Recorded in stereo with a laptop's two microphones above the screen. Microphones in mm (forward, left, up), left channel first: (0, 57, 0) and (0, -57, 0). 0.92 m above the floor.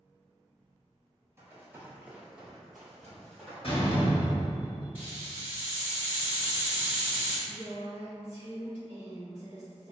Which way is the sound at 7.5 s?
55° left (ahead or behind).